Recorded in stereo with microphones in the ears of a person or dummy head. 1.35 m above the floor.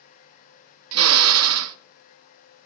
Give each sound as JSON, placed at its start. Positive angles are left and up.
{"t": 0.9, "sound": "a drill", "side_deg": -70, "distance_m": 0.6}